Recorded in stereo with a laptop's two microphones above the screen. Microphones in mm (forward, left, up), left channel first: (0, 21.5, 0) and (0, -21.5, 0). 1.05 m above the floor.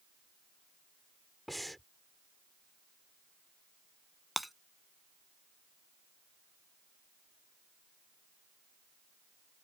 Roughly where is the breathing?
Centre.